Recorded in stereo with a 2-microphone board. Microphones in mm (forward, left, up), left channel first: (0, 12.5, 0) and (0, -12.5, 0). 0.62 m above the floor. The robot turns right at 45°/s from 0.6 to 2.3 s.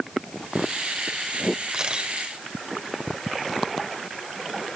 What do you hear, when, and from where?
1.7 s a camera shutter: 35° right (ahead or behind), 2.5 m; by 2.1 s 50° right (ahead or behind), 2.5 m